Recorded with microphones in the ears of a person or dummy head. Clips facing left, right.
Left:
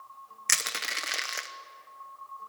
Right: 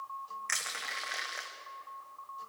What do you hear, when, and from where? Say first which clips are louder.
0.5 s crushing: left 4 dB; 55° left (ahead or behind), 1.1 m